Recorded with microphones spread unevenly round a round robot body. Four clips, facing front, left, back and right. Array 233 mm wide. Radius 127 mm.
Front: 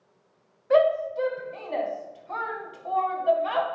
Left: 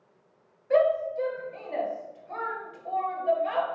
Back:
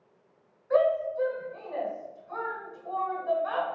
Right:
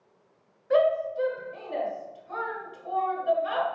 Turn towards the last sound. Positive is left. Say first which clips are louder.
# even, front 3 dB
turn(degrees=5)